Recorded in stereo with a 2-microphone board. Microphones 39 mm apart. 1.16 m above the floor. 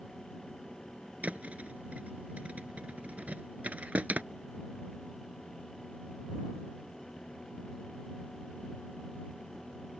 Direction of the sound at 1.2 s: 35° right (ahead or behind).